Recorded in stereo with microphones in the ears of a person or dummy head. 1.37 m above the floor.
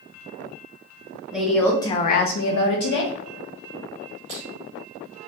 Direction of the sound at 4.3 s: 35° right (ahead or behind).